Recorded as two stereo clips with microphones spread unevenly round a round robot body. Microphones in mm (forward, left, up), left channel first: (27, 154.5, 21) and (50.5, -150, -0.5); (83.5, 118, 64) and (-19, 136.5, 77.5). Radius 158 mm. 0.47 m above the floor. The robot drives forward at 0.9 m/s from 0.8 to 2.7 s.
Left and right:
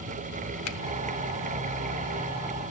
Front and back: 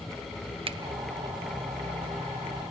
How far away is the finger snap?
About 1.1 m.